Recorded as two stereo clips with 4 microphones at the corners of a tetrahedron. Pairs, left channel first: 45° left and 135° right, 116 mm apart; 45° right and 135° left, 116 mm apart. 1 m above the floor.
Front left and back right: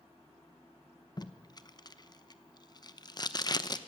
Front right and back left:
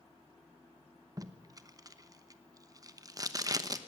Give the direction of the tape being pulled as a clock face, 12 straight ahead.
9 o'clock.